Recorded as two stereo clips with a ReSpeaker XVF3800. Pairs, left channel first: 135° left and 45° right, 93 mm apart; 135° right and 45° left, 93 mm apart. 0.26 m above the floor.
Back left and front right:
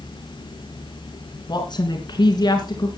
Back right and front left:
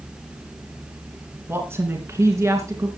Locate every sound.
1.5 s a woman speaking: 105° left, 2.5 m; by 2.9 s 95° left, 3 m